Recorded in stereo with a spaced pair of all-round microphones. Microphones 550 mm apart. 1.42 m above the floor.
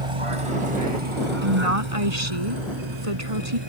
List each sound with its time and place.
0.0 s a vehicle: 70° right (ahead or behind); by 3.7 s 50° right (ahead or behind)
1.4 s a woman speaking: 75° right (ahead or behind)